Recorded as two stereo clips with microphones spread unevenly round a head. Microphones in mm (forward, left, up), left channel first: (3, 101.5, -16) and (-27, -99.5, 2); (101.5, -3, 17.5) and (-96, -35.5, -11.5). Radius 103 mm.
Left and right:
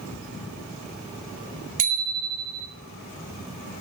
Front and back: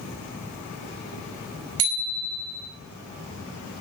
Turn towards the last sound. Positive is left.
turn(degrees=-155)